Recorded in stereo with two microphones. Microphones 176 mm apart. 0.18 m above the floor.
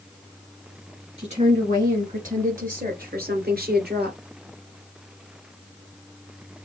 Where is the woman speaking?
40° right (ahead or behind), 2.5 m; by 4.2 s 65° right (ahead or behind), 2.5 m.